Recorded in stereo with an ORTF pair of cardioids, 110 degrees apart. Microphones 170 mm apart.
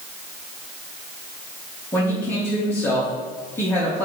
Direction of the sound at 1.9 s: 15° left.